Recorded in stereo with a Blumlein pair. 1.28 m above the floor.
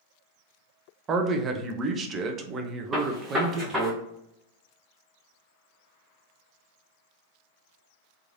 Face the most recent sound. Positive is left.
turn(degrees=-10)